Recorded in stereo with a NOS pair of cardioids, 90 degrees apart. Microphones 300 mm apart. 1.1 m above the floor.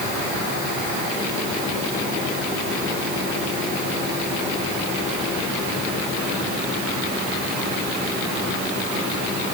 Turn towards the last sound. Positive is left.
No sound to turn to.